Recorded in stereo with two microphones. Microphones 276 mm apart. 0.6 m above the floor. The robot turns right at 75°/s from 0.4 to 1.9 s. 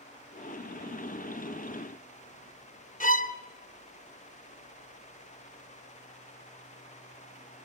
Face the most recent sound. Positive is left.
turn(degrees=30)  # may be behind; listen again after turning